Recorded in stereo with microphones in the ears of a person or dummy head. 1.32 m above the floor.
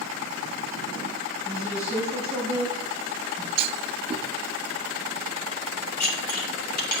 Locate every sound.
1.4 s a woman speaking: 15° left (ahead or behind), 5 m
3.6 s a clunk: 35° right (ahead or behind), 0.8 m
6.0 s dishes clattering: 50° left (ahead or behind), 1.9 m